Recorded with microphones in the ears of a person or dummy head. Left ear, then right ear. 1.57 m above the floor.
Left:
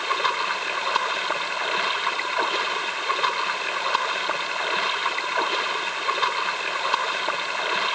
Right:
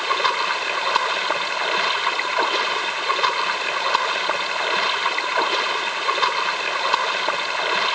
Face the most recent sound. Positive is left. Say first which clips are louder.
# right 3 dB
turn(degrees=-15)  # may be behind; listen again after turning